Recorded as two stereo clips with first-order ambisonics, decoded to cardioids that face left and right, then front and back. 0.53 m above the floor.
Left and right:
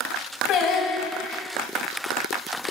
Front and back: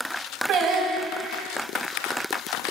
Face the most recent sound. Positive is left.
turn(degrees=135)